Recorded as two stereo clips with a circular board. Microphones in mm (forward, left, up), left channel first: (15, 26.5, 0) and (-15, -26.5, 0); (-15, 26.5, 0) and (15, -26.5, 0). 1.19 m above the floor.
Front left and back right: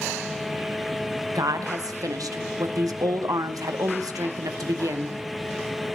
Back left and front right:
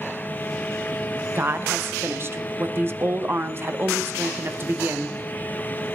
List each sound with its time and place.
1.4 s a woman speaking: 110° right, 0.9 m